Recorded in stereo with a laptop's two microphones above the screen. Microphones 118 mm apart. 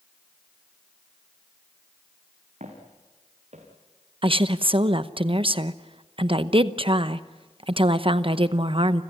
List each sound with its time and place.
2.6 s footsteps: 80° right, 5.5 m; by 3.7 s 75° right (ahead or behind), 7 m
4.2 s a woman speaking: 50° right (ahead or behind), 0.8 m